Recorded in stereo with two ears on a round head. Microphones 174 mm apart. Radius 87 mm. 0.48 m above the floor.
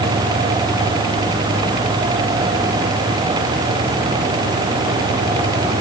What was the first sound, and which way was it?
Only background noise.